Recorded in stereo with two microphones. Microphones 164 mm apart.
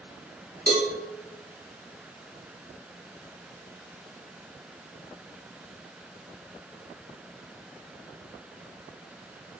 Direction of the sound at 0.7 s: 75° right (ahead or behind).